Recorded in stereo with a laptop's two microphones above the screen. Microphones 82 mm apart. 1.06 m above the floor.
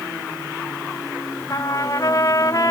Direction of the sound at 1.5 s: 50° left (ahead or behind).